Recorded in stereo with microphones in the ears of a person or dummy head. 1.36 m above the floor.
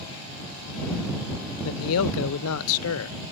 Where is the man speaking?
80° left.